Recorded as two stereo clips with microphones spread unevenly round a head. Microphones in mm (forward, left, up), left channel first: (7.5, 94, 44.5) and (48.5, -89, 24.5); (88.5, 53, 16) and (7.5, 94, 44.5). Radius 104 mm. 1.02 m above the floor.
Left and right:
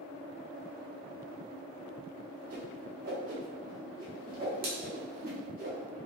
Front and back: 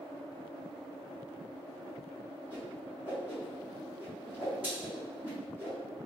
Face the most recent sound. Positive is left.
turn(degrees=-130)